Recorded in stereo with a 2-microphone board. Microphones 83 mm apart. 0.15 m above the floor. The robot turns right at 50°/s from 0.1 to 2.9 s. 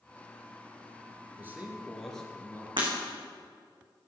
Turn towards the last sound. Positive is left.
turn(degrees=-80)